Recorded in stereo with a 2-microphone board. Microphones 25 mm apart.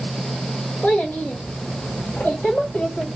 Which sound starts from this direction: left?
A child speaking, at 0.8 s.